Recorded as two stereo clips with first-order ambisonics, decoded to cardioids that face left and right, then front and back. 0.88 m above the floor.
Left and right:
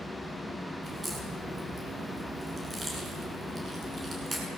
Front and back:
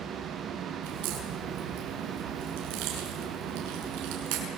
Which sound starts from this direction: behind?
A crack, at 0.8 s.